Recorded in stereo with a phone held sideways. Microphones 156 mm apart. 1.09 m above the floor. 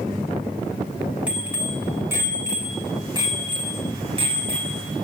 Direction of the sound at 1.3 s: 10° right (ahead or behind).